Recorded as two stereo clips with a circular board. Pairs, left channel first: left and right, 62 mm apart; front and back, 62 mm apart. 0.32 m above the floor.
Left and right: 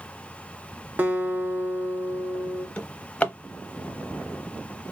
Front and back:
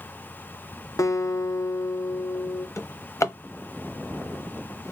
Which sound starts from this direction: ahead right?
A guitar, at 1.0 s.